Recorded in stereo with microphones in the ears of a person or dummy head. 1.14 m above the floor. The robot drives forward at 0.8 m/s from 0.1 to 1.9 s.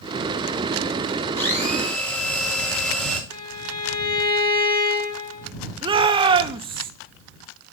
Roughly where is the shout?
Right.